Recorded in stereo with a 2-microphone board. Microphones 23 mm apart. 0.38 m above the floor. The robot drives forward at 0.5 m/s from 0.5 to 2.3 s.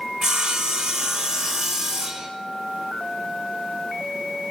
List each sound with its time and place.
0.2 s sawing: 40° right (ahead or behind), 0.9 m; by 2.3 s 25° right (ahead or behind), 1.6 m